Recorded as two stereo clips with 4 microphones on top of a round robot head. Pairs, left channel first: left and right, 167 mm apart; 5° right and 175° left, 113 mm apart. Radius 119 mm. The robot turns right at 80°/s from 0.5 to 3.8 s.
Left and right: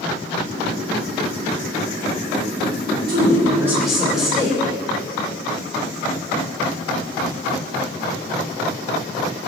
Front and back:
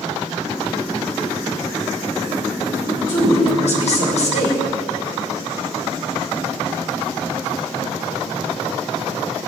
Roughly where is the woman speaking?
Ahead right.